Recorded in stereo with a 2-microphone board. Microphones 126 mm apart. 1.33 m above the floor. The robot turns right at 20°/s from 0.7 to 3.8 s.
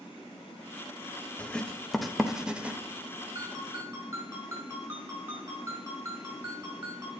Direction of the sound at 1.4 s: 10° left (ahead or behind).